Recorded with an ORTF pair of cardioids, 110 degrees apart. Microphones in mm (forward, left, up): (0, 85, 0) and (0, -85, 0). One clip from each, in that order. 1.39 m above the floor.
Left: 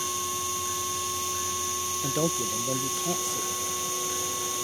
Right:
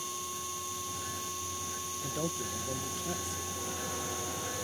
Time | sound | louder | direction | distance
0.0 | a machine running | left 8 dB | 45° left | ?
2.0 | a man speaking | left 8 dB | 45° left | ?